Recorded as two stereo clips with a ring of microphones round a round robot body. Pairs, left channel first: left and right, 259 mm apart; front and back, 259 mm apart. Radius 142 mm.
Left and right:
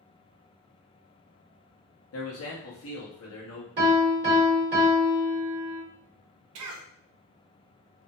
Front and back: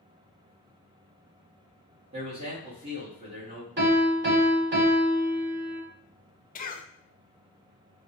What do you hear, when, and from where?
2.1 s a man speaking: 110° left, 1.2 m
3.8 s a piano: 135° right, 1.5 m
6.5 s a cough: 60° right, 0.6 m